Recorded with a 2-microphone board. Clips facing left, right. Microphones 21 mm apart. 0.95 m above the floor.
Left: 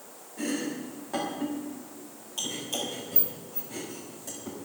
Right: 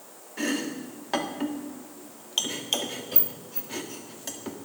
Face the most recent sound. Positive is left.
turn(degrees=-75)  # may be behind; listen again after turning